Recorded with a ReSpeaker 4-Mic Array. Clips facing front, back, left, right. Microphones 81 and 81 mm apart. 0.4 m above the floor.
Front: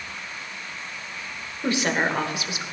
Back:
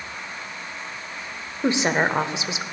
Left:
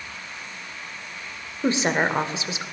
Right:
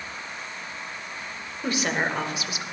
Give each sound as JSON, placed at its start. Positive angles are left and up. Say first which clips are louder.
{"t": 1.6, "sound": "a woman speaking", "louder": "back 3 dB, left 4 dB", "azimuth_deg": 130, "distance_m": 1.0}